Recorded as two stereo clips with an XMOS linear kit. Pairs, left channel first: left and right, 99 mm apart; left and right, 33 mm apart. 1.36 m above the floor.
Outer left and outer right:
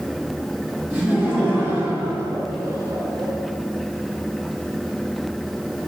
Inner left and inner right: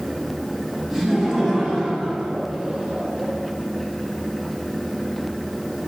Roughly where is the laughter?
Centre.